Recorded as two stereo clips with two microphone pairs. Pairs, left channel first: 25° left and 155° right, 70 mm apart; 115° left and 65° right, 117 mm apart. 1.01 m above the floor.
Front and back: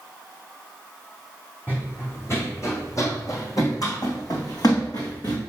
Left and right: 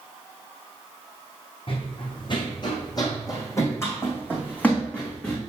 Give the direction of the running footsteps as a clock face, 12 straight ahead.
9 o'clock.